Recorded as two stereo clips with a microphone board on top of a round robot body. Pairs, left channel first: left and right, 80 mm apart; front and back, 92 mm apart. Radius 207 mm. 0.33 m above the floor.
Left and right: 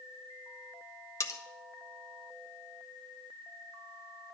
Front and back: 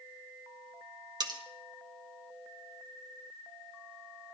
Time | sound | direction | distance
1.2 | cutlery clinking | 140° left | 1.2 m